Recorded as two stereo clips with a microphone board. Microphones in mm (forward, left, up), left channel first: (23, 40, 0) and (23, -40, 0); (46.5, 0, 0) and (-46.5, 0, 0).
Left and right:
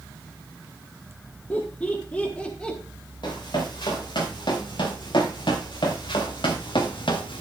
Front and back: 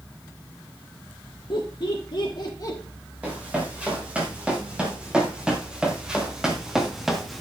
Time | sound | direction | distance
1.5 | laughter | 20° left | 2.5 m
3.2 | running footsteps | 105° left | 5.5 m